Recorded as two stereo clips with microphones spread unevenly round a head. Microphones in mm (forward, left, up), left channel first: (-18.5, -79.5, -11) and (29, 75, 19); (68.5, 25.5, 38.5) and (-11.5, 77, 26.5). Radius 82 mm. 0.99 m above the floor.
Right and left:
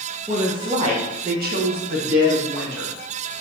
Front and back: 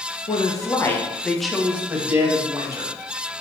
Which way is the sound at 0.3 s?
5° right.